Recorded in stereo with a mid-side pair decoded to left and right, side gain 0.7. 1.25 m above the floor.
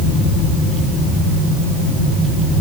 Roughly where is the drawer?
No drawer in this recording.